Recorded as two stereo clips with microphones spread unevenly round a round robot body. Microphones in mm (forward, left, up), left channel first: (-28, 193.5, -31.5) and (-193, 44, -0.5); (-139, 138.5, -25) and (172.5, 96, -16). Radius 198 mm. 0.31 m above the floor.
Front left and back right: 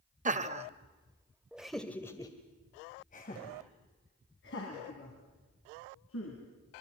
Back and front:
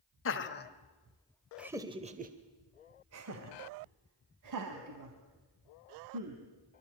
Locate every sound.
0.2 s laughter: 175° left, 1.3 m; by 6.4 s 5° left, 3 m